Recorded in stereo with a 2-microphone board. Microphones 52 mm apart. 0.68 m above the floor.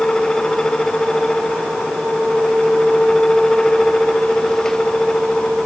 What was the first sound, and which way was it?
Only background noise.